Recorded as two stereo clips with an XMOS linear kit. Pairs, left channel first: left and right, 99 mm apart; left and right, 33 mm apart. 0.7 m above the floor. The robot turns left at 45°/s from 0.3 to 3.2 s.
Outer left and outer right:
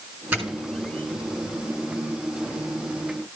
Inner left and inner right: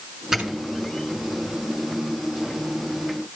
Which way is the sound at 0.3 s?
20° right (ahead or behind).